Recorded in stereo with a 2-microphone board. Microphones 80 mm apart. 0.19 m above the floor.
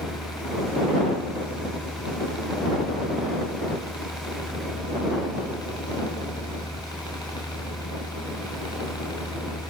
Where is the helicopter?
65° left (ahead or behind).